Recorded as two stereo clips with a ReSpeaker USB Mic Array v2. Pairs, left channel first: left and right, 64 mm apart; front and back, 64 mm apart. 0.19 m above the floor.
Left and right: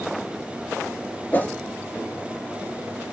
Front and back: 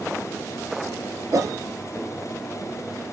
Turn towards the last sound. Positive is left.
turn(degrees=155)